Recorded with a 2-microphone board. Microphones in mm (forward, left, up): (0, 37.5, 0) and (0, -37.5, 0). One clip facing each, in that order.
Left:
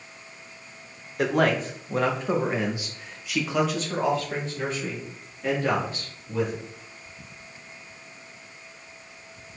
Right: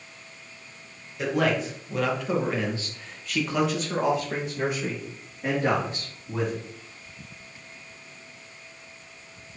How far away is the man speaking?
About 1.8 m.